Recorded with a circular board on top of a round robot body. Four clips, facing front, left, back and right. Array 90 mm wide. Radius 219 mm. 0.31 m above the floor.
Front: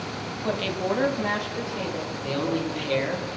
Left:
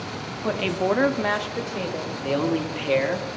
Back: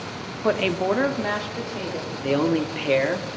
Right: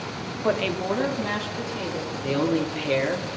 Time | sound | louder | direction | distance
0.4 | a woman speaking | left 1 dB, back 5 dB | 160° right | 1.0 m
2.2 | a man speaking | even, back 6 dB | 170° left | 1.5 m